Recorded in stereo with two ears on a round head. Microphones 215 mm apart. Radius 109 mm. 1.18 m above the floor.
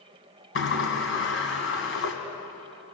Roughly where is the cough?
No cough in this recording.